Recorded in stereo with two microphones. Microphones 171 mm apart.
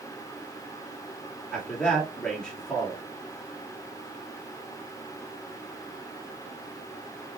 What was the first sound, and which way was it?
A man speaking, 5° left (ahead or behind).